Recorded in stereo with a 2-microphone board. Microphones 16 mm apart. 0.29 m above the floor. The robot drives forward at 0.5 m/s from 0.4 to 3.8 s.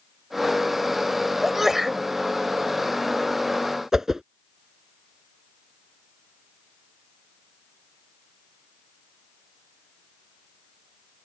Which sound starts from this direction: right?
A whoosh, at 3.9 s.